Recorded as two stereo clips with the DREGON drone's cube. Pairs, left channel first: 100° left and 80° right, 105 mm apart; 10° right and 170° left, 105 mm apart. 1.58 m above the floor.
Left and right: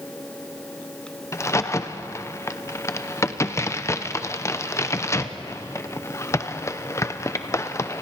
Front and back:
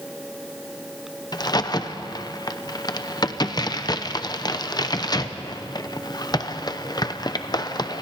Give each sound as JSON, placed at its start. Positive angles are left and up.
{"t": 1.3, "sound": "a crack", "azimuth_deg": 35, "distance_m": 0.7}